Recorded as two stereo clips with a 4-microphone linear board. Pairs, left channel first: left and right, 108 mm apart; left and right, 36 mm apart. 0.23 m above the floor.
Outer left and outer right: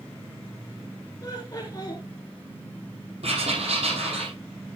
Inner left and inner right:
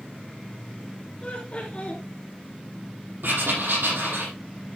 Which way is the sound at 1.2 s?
35° left (ahead or behind).